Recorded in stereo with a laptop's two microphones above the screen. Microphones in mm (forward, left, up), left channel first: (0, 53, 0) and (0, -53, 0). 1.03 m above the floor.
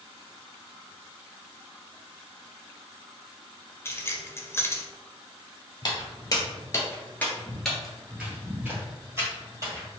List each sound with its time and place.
3.9 s keys jangling: 25° left (ahead or behind), 0.6 m
5.8 s footsteps: 40° left (ahead or behind), 1.3 m; by 9.9 s 35° right (ahead or behind), 1.8 m